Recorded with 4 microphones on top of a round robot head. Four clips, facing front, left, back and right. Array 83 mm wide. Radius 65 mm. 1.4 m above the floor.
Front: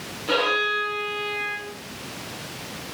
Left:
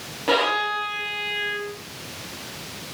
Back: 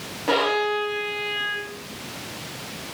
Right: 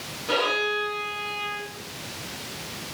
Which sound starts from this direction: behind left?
A violin, at 0.3 s.